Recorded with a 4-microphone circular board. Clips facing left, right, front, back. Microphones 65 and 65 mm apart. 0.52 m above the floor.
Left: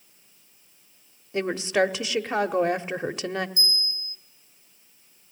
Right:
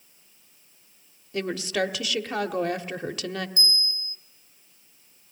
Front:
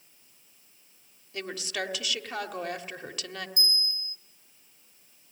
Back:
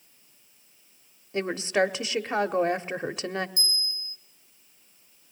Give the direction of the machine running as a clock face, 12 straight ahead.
No machine running in this recording.